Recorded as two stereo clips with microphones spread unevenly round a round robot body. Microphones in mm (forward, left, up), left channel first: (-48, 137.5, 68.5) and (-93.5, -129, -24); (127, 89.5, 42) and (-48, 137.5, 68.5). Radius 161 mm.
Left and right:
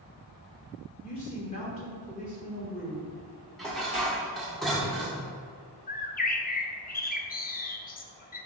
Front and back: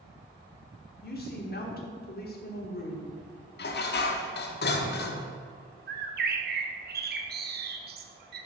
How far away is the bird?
About 0.9 m.